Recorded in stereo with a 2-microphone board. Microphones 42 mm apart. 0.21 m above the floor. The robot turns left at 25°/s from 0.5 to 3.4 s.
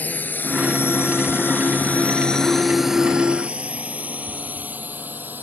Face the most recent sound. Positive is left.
turn(degrees=-45)  # may be behind; listen again after turning